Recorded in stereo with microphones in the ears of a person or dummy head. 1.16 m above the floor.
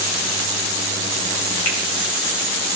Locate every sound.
1.6 s a finger snap: 85° left, 8 m